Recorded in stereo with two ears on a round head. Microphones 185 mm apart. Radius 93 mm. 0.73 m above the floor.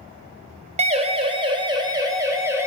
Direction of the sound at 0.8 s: 30° right (ahead or behind).